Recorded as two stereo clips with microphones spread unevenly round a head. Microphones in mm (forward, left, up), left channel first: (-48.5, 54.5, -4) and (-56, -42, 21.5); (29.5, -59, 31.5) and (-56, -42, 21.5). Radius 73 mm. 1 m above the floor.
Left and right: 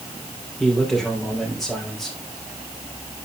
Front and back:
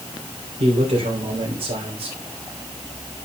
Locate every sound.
0.6 s a man speaking: 175° left, 3.5 m